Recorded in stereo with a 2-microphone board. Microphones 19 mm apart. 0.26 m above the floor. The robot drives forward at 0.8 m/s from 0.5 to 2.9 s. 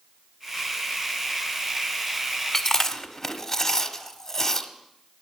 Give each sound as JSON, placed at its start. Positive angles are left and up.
{"t": 2.5, "sound": "chewing", "side_deg": 25, "distance_m": 1.2}